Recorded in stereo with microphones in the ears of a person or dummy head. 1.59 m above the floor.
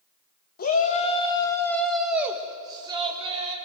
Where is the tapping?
I don't hear tapping.